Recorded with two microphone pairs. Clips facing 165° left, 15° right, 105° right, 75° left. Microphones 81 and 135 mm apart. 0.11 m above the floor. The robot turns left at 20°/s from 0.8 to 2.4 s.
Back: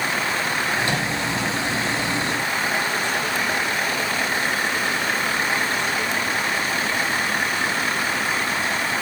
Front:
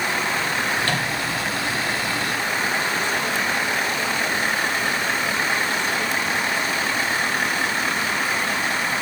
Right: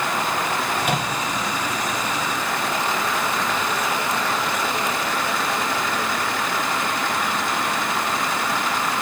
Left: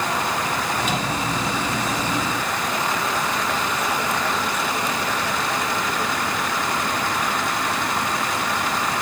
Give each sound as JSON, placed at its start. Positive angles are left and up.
{"t": 0.8, "sound": "a microwave", "azimuth_deg": -125, "distance_m": 3.5}